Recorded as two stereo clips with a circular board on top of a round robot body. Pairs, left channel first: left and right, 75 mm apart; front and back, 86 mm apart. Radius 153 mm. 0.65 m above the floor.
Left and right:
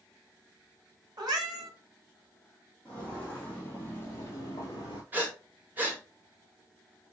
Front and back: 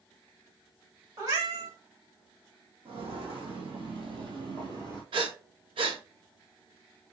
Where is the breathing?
155° right, 1.1 m.